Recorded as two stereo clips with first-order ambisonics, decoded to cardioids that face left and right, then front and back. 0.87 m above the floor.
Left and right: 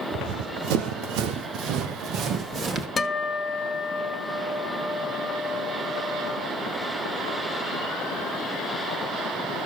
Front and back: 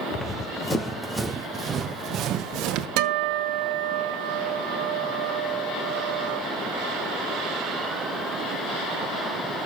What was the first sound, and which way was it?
Running footsteps, 65° right.